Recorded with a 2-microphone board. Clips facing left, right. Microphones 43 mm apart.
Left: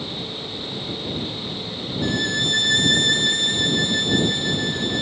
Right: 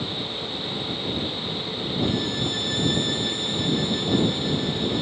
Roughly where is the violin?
Left.